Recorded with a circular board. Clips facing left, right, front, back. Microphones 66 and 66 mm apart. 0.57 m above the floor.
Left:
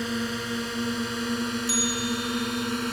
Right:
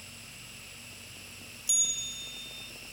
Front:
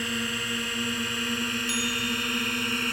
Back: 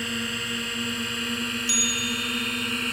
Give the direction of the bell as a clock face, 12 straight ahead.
10 o'clock.